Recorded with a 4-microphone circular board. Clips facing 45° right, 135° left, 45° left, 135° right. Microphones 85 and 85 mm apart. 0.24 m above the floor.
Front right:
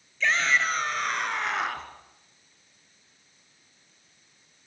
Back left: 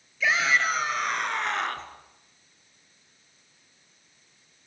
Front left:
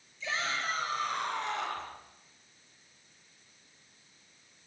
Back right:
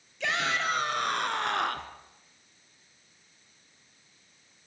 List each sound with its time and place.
0.2 s a shout: 140° right, 3.5 m; by 1.9 s 125° right, 2.5 m